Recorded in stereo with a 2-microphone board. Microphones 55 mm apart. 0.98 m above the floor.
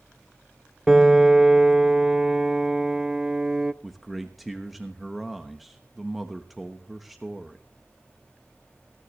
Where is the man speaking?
Centre (ahead or behind), 1.0 m.